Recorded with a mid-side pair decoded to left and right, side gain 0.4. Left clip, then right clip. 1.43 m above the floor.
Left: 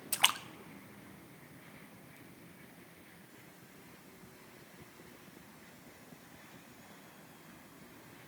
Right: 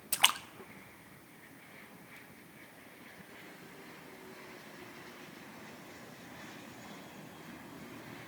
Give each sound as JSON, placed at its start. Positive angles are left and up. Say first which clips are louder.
{"t": 0.1, "sound": "a splash", "louder": "right 2 dB", "azimuth_deg": -5, "distance_m": 0.5}